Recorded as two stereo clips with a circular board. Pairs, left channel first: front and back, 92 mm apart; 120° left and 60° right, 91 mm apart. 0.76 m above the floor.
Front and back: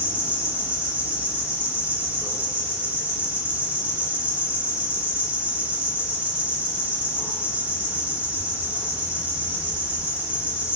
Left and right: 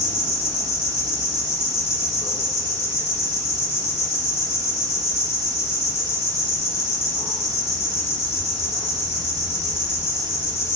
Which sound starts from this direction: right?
An insect, at 0.0 s.